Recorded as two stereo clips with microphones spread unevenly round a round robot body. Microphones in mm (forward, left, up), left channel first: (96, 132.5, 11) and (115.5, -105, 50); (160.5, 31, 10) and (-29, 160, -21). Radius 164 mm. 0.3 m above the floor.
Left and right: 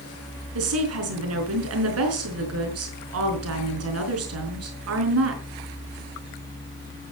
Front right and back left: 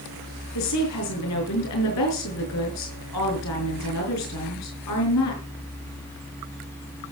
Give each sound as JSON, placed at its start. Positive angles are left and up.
{"t": 0.6, "sound": "a woman speaking", "azimuth_deg": -65, "distance_m": 5.0}